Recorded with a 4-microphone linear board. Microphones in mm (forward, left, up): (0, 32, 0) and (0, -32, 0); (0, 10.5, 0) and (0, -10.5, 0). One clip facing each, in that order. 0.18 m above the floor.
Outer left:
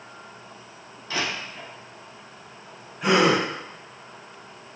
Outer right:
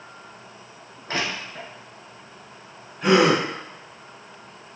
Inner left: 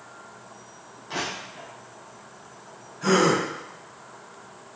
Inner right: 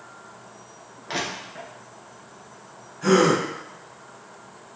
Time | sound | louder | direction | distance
1.1 | crushing | outer right 1 dB, inner right 2 dB | 45° right (ahead or behind) | 1.2 m
3.0 | a gasp | outer right 2 dB, inner right 2 dB | 5° left (ahead or behind) | 1.6 m